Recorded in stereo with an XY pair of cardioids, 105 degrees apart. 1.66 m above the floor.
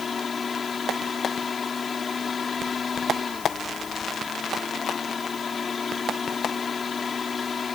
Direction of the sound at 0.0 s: 35° left.